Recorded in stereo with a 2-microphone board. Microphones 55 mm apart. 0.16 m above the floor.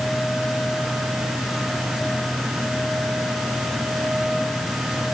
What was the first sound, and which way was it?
Only background noise.